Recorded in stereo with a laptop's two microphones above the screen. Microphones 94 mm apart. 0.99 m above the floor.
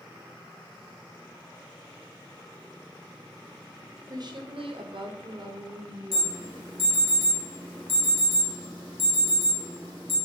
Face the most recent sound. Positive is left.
turn(degrees=70)  # may be behind; listen again after turning